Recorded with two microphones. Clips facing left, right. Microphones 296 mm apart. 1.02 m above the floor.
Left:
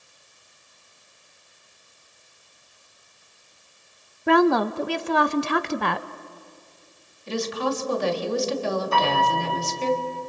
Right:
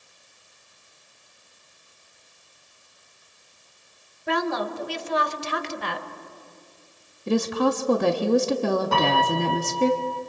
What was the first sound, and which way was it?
A woman speaking, 65° left (ahead or behind).